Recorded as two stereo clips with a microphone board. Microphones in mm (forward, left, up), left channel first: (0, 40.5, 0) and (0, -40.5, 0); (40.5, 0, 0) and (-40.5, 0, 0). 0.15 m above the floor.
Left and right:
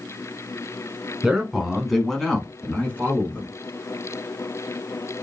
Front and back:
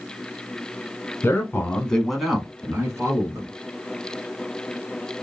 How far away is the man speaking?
About 1.2 m.